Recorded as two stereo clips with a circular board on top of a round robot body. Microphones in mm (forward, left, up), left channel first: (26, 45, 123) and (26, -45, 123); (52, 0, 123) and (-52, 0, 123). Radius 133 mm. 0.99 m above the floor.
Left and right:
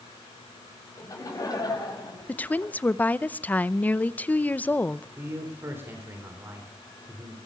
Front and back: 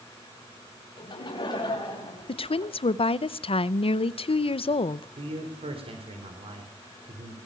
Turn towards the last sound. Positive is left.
turn(degrees=-155)